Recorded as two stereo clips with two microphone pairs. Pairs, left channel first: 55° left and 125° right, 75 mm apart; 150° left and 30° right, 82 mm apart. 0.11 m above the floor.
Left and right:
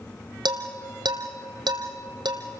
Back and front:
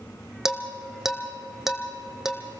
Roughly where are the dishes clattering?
Behind right.